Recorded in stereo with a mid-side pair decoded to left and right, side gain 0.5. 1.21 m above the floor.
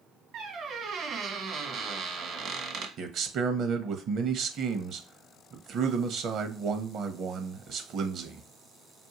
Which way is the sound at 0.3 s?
55° right.